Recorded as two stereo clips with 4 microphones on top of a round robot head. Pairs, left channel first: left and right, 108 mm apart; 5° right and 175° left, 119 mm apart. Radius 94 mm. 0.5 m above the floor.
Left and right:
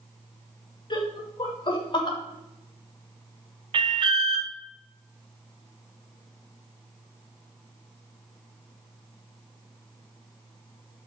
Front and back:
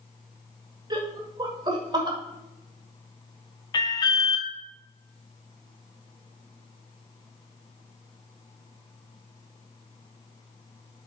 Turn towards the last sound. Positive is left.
turn(degrees=-55)